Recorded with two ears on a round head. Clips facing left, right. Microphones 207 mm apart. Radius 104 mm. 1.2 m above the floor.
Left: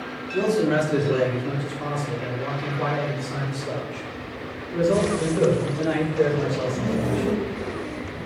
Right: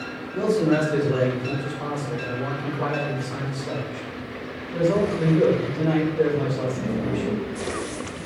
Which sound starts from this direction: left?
A man speaking, at 0.3 s.